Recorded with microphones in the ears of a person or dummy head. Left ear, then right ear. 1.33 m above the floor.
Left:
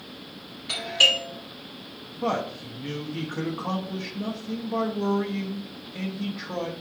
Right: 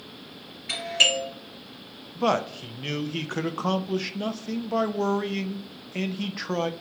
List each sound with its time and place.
0.7 s a doorbell: 35° right (ahead or behind), 2.5 m
2.1 s a man speaking: 80° right, 0.6 m